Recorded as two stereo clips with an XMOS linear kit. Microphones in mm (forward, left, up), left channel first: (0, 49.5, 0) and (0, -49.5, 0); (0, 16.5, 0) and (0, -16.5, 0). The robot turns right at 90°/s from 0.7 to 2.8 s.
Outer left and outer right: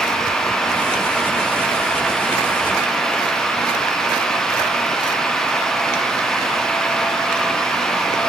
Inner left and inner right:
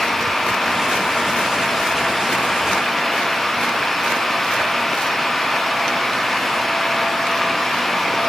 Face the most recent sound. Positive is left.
No sound to turn to.